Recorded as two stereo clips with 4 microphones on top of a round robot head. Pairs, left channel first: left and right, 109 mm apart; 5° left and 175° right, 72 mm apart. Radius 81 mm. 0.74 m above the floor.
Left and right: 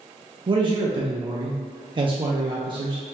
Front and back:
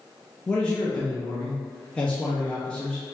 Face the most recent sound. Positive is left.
turn(degrees=-70)